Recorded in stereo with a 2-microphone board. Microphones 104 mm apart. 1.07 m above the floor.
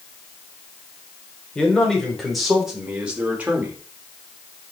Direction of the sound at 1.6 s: 10° left (ahead or behind).